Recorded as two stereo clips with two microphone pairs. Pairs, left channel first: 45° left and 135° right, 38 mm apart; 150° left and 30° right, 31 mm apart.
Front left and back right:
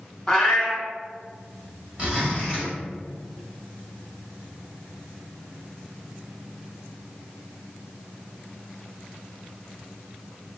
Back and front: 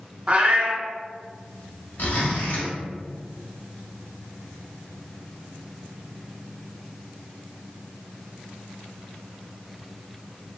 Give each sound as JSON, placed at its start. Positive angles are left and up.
{"t": 0.3, "sound": "a cat meowing", "azimuth_deg": -30, "distance_m": 1.0}
{"t": 2.0, "sound": "a zipper", "azimuth_deg": 160, "distance_m": 1.2}